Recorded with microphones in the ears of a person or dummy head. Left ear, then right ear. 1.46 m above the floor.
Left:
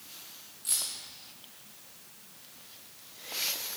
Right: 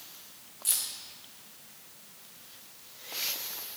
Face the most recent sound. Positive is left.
turn(degrees=-30)  # may be behind; listen again after turning